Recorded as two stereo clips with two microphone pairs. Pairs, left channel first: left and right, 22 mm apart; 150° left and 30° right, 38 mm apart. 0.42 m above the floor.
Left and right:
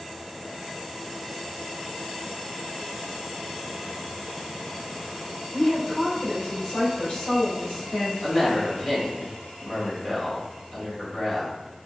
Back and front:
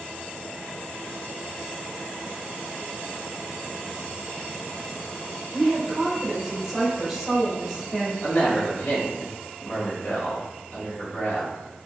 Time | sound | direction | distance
5.5 | a woman speaking | 60° left | 1.2 m
8.2 | a woman speaking | 135° left | 1.5 m